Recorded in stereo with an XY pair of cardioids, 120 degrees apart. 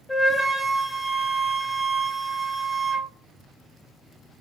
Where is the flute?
15° left, 0.9 m.